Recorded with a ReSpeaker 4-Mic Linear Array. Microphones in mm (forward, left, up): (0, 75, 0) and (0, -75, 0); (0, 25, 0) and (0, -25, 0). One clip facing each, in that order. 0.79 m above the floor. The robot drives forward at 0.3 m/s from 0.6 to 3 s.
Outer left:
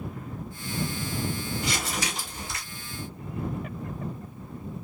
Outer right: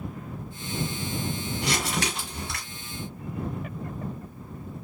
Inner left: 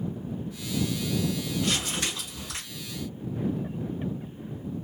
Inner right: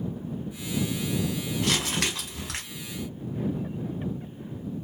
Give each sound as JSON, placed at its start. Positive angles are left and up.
{"t": 1.6, "sound": "crumpling", "side_deg": -75, "distance_m": 1.3}